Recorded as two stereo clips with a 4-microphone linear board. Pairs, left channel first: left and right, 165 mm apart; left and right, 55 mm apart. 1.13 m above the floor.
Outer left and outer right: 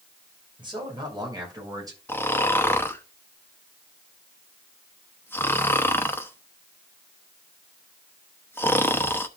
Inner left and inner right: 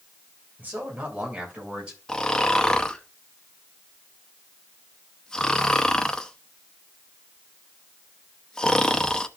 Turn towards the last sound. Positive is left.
turn(degrees=15)  # may be behind; listen again after turning